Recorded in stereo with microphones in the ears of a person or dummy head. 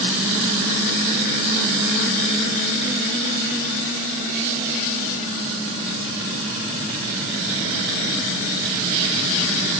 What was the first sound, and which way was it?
Only background noise.